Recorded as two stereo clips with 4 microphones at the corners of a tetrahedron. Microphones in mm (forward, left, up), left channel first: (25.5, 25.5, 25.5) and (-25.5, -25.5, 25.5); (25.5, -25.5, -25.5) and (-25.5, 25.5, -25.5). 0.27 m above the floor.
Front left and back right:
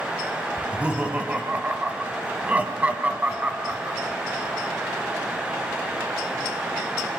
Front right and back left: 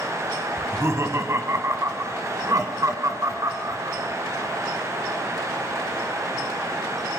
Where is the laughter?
160° left, 2 m.